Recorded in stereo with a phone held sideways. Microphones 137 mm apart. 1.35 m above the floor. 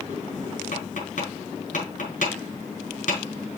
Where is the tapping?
65° left (ahead or behind), 5 m.